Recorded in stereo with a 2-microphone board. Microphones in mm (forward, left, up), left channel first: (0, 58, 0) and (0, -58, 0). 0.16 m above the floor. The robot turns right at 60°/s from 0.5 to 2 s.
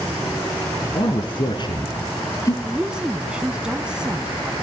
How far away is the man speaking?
About 2 m.